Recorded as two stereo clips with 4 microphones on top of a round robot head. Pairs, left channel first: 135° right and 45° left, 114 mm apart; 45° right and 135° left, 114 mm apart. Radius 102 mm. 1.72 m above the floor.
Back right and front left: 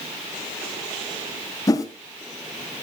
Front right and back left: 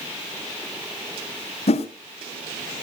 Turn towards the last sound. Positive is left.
turn(degrees=-75)